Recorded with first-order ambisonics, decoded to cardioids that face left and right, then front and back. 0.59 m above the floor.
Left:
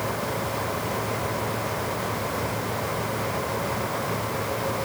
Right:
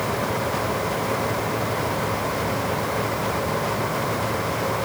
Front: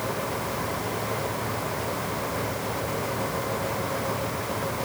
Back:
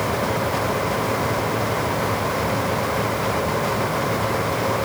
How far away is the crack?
No crack in this recording.